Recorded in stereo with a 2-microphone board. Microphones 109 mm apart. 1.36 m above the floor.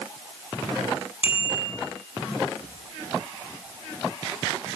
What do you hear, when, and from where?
1.2 s a bicycle bell: 45° left (ahead or behind), 8.5 m